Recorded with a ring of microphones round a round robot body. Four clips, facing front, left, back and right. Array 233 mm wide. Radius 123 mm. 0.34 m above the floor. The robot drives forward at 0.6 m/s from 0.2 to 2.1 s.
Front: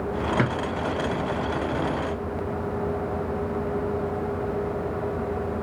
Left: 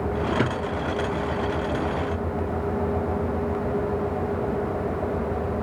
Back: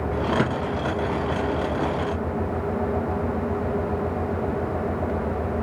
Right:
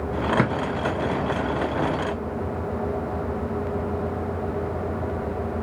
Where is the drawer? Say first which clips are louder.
Right 2 dB, front 1 dB; 80° right, 1.2 m; by 0.5 s 85° right, 1.1 m.